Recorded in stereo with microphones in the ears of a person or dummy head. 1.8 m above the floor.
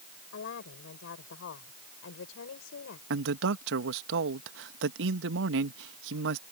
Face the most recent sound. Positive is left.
turn(degrees=-70)  # may be behind; listen again after turning